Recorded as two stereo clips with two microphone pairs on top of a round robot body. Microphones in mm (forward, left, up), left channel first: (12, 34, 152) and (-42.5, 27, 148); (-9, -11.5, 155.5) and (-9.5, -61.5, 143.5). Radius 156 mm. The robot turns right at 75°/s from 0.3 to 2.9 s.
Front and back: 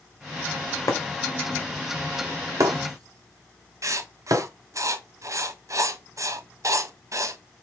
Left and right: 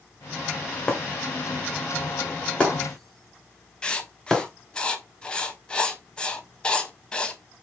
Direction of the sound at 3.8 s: 165° left.